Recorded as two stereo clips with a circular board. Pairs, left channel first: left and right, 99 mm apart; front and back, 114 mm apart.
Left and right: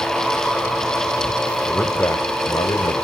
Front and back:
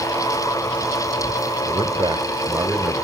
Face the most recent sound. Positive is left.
turn(degrees=100)